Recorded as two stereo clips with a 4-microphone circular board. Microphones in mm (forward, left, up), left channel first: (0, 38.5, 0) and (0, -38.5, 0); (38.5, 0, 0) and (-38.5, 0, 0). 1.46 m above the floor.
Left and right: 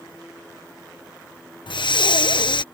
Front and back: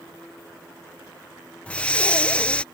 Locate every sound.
1.7 s breathing: 75° left